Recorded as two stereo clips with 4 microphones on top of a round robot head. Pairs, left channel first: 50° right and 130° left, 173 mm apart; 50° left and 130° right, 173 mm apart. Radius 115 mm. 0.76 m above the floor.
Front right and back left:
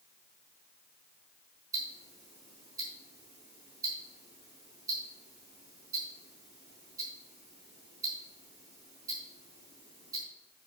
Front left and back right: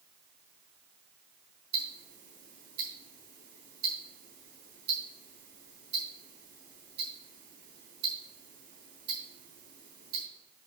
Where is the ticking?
155° right, 3.5 m.